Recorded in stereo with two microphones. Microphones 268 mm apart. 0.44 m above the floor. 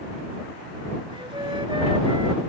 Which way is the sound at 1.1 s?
20° right (ahead or behind).